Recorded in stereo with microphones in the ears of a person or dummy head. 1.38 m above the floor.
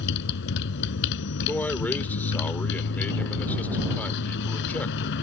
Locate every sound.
0.0 s a motorcycle: 65° left (ahead or behind)
1.5 s a man speaking: 10° left (ahead or behind)